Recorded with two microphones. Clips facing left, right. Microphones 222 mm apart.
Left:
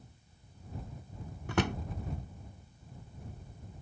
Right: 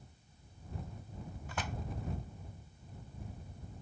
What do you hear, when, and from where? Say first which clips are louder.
1.5 s a drawer: left 12 dB; 80° left